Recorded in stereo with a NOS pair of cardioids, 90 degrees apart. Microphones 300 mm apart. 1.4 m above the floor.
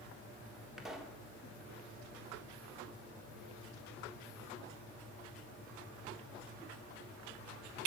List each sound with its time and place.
0.8 s a pop: straight ahead, 1.3 m